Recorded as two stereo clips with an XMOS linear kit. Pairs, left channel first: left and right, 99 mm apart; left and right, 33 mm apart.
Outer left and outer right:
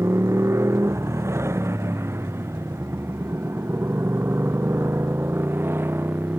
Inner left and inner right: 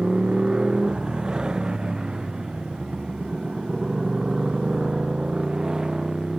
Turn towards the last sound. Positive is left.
turn(degrees=-20)  # may be behind; listen again after turning